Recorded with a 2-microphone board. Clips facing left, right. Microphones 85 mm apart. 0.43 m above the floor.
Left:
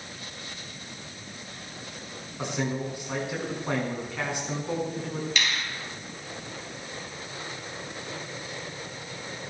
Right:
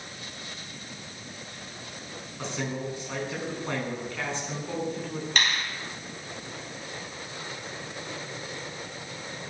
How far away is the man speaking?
About 5.5 m.